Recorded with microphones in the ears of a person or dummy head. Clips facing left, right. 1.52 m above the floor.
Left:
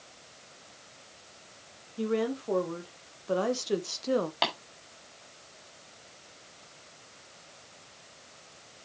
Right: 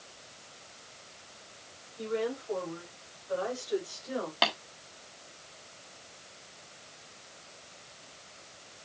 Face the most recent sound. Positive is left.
turn(degrees=-10)  # may be behind; listen again after turning